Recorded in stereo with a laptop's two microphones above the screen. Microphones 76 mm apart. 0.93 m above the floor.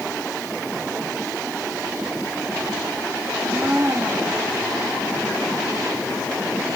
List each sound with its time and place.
3.3 s a blender: 40° right (ahead or behind), 3 m